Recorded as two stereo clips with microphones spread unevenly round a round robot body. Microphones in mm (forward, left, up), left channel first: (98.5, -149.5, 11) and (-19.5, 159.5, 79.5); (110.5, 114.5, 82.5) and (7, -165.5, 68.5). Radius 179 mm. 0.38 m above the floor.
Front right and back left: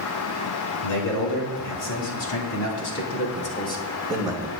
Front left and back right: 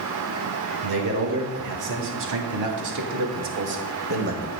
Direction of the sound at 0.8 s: 100° right.